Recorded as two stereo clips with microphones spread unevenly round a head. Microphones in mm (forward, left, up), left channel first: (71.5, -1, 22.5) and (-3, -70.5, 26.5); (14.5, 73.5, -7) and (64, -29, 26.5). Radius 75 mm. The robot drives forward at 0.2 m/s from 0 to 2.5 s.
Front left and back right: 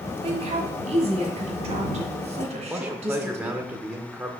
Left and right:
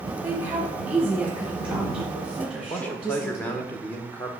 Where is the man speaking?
150° left, 0.8 m.